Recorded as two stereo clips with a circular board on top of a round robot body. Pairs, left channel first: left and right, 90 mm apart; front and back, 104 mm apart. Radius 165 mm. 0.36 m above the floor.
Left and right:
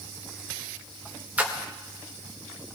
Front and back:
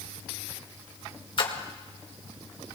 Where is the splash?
20° right, 2 m.